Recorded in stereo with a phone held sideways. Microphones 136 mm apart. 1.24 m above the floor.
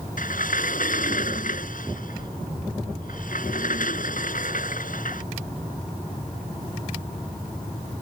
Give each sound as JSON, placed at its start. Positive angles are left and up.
{"t": 0.2, "sound": "a sliding door", "side_deg": 85}